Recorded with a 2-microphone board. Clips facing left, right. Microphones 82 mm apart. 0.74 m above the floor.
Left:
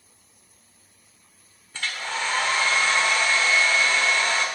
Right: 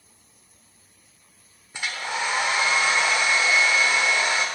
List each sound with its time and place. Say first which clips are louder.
1.7 s a hair dryer: right 1 dB; 15° right (ahead or behind), 1.0 m